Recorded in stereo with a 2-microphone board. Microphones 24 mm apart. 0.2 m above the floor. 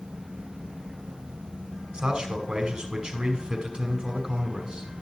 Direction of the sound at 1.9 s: 40° right (ahead or behind).